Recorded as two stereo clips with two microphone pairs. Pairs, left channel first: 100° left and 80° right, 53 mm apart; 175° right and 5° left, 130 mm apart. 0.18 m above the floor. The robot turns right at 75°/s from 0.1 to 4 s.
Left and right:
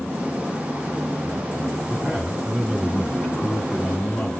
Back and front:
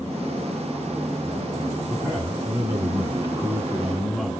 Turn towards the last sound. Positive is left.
turn(degrees=105)